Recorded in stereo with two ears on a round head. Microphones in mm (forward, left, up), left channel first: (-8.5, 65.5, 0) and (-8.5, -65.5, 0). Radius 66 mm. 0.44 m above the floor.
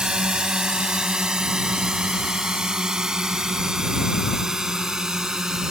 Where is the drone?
5° right (ahead or behind).